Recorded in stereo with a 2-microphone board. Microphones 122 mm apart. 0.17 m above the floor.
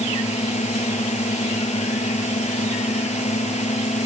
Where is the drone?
65° left (ahead or behind).